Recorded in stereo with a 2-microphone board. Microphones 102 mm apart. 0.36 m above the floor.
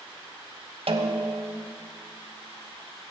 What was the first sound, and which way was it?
A snare drum, 65° right (ahead or behind).